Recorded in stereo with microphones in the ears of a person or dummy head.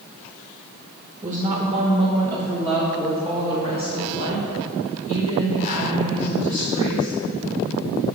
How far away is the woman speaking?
About 1.2 m.